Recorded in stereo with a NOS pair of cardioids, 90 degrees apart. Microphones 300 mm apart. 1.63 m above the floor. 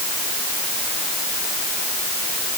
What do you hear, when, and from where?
Only background noise.